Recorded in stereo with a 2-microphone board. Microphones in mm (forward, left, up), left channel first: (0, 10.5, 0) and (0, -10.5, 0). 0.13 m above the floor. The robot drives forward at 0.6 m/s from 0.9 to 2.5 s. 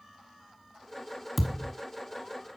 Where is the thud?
5° left (ahead or behind), 1.5 m.